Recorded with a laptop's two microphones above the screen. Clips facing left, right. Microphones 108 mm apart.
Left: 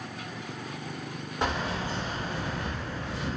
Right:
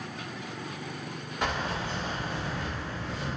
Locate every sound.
1.4 s keys jangling: 25° left (ahead or behind), 1.2 m; by 3.3 s 65° left (ahead or behind), 0.6 m